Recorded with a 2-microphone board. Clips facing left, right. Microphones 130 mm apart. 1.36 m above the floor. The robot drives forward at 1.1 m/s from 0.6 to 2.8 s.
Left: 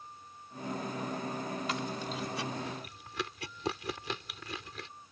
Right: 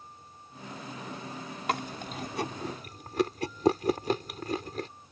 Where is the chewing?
60° right (ahead or behind); by 4.9 s 45° right (ahead or behind).